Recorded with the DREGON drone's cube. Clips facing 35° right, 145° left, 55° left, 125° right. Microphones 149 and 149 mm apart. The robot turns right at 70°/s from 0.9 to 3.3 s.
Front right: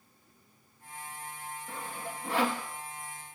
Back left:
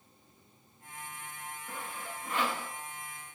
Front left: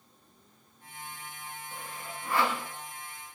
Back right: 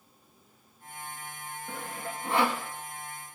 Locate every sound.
1.7 s sawing: 100° right, 6 m; by 2.6 s 35° right, 6 m